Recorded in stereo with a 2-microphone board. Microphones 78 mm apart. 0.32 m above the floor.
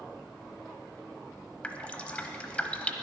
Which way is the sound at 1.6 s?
15° left (ahead or behind).